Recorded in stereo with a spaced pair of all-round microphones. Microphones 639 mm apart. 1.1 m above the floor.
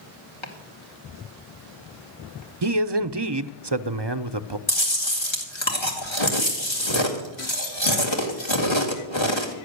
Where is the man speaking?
45° right (ahead or behind), 0.6 m.